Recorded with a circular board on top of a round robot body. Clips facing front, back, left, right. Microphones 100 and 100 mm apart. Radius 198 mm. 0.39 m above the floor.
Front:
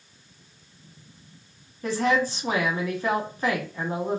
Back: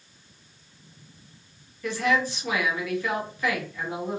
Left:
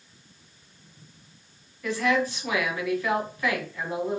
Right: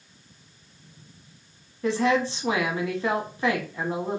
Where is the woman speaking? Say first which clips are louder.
Front 2 dB, right 2 dB; 40° right, 1.0 m.